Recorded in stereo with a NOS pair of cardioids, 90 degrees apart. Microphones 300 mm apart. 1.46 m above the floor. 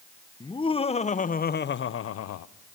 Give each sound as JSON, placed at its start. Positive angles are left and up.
{"t": 0.4, "sound": "laughter", "azimuth_deg": 15, "distance_m": 1.3}